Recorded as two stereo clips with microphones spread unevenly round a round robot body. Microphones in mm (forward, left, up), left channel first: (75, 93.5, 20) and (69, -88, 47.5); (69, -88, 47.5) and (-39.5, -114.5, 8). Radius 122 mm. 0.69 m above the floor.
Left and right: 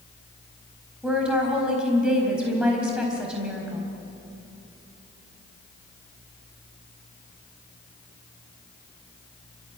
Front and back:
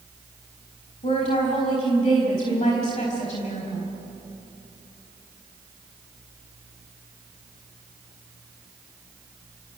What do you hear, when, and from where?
1.0 s a woman speaking: 5° right, 4.5 m